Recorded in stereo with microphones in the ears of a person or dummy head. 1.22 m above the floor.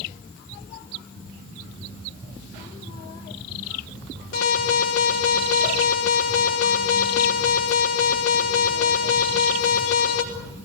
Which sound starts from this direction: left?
An alarm, at 4.3 s.